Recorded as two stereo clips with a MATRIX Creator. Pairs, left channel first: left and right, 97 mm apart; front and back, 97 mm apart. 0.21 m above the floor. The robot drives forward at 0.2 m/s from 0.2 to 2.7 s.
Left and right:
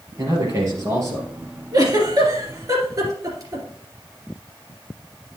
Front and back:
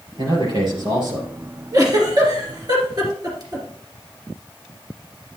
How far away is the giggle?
About 2 m.